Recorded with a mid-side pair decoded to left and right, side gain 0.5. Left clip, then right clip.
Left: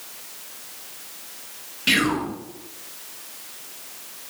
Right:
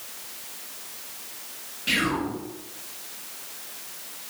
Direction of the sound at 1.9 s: 55° left.